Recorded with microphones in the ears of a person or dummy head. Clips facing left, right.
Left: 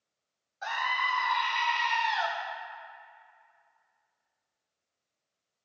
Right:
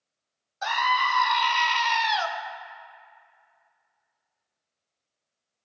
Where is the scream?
65° right (ahead or behind), 0.6 m.